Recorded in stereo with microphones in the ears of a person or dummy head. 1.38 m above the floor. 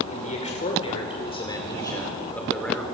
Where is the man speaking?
40° left (ahead or behind), 6 m; by 2.9 s 5° left (ahead or behind), 5.5 m.